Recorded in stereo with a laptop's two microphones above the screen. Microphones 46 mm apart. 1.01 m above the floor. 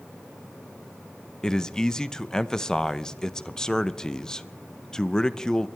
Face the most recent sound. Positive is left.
turn(degrees=15)  # may be behind; listen again after turning